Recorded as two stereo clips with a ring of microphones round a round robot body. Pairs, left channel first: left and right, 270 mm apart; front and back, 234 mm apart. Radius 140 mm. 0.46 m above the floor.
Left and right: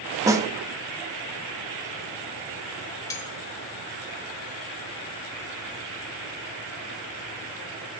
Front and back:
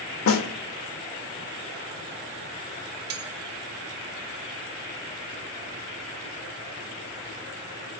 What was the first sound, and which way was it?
A snare drum, 15° right.